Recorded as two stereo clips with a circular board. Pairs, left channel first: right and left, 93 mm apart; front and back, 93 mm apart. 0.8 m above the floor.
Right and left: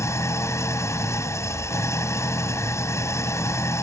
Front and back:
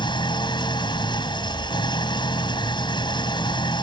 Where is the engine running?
35° right.